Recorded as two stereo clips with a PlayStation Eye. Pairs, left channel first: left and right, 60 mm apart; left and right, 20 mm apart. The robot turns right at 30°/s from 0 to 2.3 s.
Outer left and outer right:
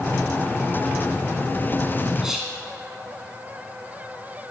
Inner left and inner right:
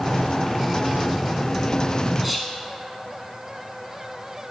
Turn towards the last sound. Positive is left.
turn(degrees=-5)  # may be behind; listen again after turning